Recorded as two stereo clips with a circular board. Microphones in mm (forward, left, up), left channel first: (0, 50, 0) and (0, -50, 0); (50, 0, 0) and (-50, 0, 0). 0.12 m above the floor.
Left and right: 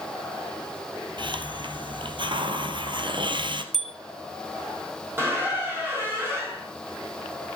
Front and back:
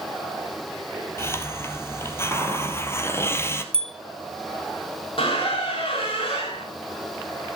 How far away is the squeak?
About 6.5 m.